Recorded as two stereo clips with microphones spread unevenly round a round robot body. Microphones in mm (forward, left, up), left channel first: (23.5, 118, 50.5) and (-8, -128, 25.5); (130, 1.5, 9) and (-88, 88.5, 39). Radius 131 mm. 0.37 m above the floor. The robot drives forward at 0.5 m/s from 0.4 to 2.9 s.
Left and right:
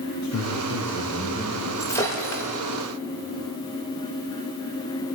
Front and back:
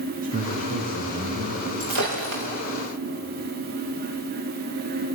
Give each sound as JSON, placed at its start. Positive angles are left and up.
{"t": 0.2, "sound": "a man speaking", "azimuth_deg": 105, "distance_m": 5.0}
{"t": 1.8, "sound": "breaking glass", "azimuth_deg": 160, "distance_m": 6.0}